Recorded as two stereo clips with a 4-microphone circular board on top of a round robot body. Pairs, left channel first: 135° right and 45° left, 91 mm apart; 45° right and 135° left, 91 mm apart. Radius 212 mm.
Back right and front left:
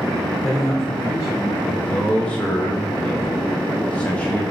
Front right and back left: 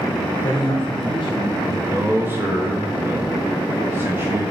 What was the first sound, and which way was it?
A man speaking, 75° right.